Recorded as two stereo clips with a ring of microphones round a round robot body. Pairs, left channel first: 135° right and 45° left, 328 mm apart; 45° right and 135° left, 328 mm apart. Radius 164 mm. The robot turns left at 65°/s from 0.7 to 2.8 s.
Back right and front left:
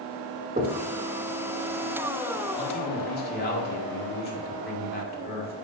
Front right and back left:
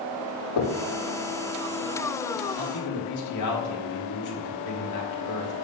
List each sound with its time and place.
0.6 s knocking: 25° right, 1.3 m; by 0.8 s 30° right, 1.3 m
2.6 s a man speaking: 60° right, 1.9 m; by 5.5 s 75° right, 1.9 m